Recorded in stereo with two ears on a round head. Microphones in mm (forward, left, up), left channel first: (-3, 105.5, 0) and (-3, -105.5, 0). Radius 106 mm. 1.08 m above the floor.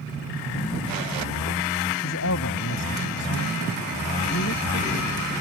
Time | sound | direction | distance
2.0 | a man speaking | 60° left (ahead or behind) | ?